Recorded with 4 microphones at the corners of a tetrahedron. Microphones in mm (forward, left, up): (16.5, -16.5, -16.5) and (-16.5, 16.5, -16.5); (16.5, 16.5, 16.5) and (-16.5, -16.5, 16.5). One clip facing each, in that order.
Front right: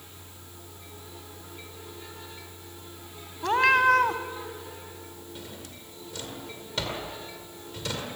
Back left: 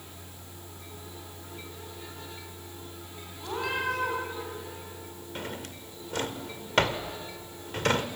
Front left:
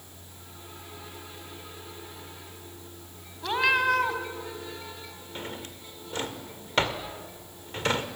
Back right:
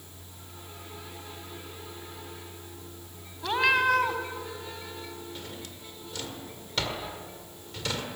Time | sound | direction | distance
3.4 | a cat meowing | 45° right | 1.9 m
5.3 | a drawer | 100° left | 1.8 m